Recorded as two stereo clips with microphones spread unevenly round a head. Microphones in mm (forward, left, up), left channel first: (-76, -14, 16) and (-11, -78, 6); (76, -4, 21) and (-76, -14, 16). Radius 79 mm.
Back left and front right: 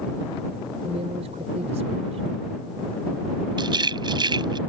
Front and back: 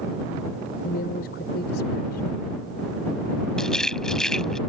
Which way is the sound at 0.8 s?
15° right.